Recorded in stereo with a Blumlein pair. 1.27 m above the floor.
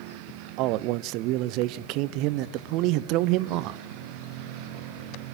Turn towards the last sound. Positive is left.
turn(degrees=-40)